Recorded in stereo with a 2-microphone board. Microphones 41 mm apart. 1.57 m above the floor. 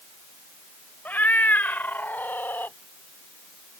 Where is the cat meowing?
50° left (ahead or behind); by 2.8 s 65° left (ahead or behind).